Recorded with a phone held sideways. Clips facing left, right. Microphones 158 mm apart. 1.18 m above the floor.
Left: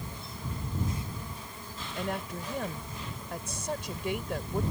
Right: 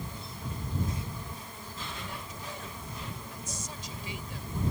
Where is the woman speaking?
60° left (ahead or behind).